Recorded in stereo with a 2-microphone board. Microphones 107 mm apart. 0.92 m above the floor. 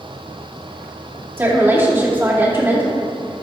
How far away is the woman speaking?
About 2 m.